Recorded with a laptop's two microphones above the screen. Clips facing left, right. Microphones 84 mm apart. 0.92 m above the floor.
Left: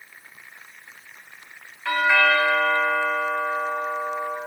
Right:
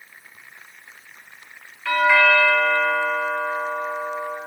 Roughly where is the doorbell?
Centre.